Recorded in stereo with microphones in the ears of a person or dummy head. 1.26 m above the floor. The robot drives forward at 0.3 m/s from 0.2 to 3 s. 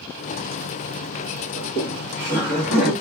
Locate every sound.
1.6 s laughter: 70° left (ahead or behind), 1.6 m; by 2.9 s 60° left (ahead or behind), 1.8 m